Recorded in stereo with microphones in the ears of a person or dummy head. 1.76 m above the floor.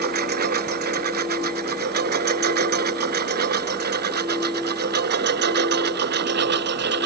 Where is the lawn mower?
55° right (ahead or behind); by 7.1 s 60° right (ahead or behind).